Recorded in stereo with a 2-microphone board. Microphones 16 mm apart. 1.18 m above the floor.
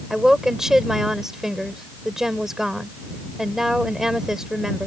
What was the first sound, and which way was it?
A woman speaking, 25° right (ahead or behind).